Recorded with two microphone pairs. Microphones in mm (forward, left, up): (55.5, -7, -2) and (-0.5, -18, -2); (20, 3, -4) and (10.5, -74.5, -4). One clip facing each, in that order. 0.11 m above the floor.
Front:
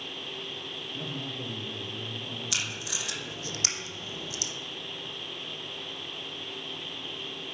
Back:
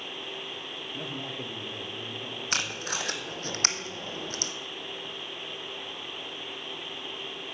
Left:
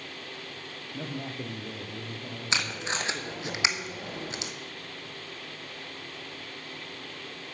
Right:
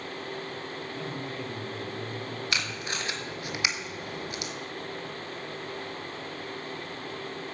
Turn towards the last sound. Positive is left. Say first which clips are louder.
# back 6 dB, left 5 dB
turn(degrees=155)